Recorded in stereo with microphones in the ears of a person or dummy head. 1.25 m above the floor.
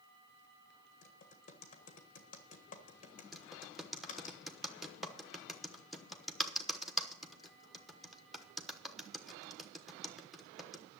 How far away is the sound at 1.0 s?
About 1.4 m.